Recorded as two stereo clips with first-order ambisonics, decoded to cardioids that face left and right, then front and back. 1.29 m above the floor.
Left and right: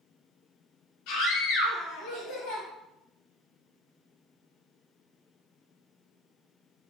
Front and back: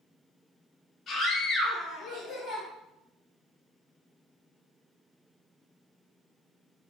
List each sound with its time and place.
1.1 s a scream: 65° left, 3.5 m